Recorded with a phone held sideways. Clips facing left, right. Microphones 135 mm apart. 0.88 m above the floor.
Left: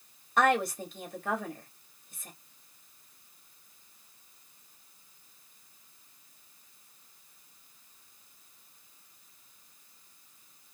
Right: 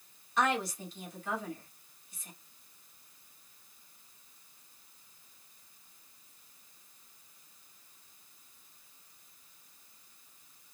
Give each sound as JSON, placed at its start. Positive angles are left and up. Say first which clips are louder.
{"t": 0.4, "sound": "a woman speaking", "louder": "left 5 dB", "side_deg": 55, "distance_m": 1.8}